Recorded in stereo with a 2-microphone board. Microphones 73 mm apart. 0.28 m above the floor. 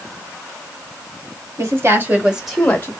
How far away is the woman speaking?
About 1.7 m.